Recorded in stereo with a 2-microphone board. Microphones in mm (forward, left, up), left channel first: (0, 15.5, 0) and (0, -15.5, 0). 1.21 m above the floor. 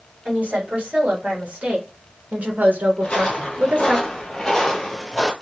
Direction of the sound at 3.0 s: 35° left (ahead or behind).